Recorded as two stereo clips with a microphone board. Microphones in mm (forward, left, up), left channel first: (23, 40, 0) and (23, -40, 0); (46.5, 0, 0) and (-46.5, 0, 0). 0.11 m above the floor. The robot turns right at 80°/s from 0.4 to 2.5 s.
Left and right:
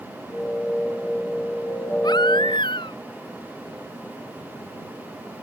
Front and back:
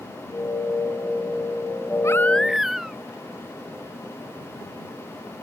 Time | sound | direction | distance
2.0 | a baby crying | 55° left | ?